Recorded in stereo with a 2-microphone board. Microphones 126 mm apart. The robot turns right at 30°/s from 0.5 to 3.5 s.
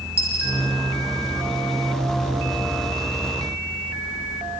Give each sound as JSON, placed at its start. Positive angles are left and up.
{"t": 0.2, "sound": "a dropped coin", "side_deg": -50, "distance_m": 9.0}